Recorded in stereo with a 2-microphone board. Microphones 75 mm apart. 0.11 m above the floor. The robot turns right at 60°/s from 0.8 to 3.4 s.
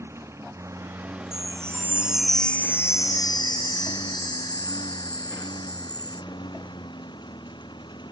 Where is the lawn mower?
40° right (ahead or behind); by 8.1 s 90° left.